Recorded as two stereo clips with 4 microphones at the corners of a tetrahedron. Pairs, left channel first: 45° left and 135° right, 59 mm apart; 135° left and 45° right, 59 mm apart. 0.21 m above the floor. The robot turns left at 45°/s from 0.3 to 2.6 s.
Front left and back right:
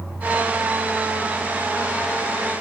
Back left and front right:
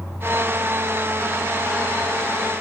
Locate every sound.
Only background noise.